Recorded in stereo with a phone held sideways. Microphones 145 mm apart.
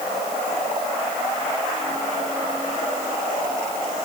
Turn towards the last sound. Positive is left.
No sound to turn to.